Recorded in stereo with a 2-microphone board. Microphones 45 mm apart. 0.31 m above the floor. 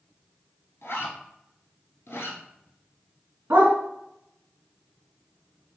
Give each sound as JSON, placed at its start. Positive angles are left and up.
{"t": 0.8, "sound": "a zipper", "side_deg": 90, "distance_m": 0.9}
{"t": 3.5, "sound": "a dog barking", "side_deg": -70, "distance_m": 0.8}